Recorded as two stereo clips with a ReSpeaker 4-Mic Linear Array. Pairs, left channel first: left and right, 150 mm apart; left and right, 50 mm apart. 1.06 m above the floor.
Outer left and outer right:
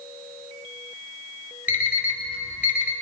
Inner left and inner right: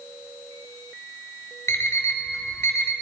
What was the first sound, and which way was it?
An alarm clock, 70° left (ahead or behind).